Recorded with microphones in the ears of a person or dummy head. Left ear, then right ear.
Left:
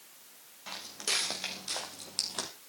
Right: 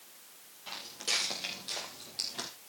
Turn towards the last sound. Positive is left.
turn(degrees=40)  # may be behind; listen again after turning